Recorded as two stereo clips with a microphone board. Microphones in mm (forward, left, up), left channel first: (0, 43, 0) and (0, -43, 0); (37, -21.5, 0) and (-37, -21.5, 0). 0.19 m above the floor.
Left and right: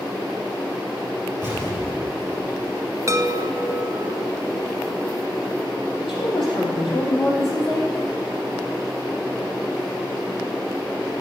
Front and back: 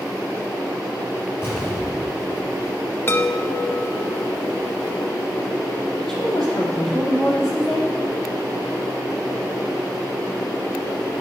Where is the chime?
50° right, 0.7 m.